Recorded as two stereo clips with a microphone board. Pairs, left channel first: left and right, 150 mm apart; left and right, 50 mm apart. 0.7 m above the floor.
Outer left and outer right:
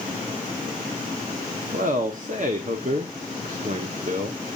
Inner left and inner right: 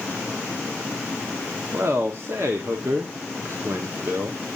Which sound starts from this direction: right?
A man speaking, at 1.7 s.